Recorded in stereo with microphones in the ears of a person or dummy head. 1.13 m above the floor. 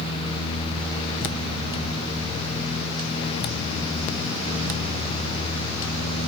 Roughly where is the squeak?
I don't hear a squeak.